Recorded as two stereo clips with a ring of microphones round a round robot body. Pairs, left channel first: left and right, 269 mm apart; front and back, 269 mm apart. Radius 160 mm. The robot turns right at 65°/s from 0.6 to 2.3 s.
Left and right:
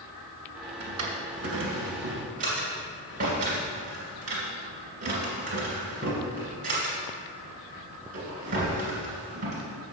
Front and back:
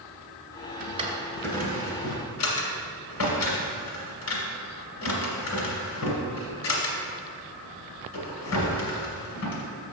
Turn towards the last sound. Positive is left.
turn(degrees=-25)